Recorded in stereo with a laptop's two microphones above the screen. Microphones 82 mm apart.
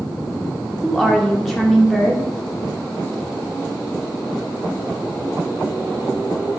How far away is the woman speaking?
About 1.0 m.